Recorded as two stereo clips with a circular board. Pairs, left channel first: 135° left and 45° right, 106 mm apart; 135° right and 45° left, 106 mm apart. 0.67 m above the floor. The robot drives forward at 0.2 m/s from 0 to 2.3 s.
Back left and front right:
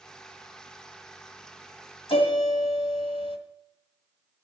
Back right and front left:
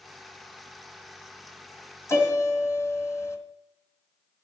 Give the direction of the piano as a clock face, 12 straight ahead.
7 o'clock.